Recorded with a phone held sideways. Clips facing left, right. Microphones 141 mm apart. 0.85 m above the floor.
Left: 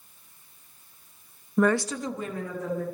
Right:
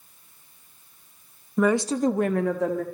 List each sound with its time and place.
1.6 s a woman speaking: 5° left (ahead or behind), 0.8 m; by 2.8 s 75° right (ahead or behind), 1.7 m